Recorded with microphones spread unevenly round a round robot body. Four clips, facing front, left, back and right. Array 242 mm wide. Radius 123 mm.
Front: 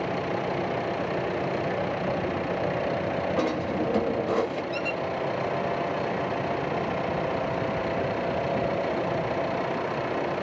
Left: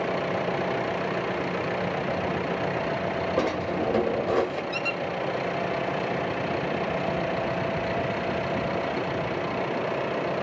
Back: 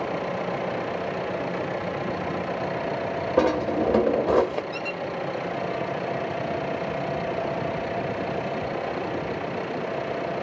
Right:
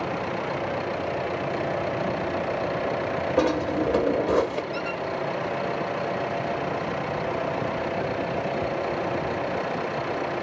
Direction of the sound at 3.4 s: 175° right.